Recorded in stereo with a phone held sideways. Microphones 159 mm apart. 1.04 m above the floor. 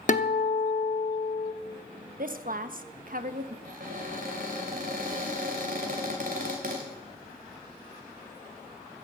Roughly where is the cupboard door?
Right.